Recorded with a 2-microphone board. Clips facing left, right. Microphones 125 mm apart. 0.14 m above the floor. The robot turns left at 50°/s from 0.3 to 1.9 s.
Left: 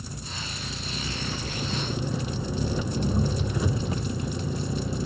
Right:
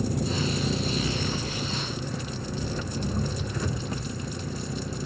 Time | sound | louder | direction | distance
0.0 | an engine running | right 12 dB | 110° right | ?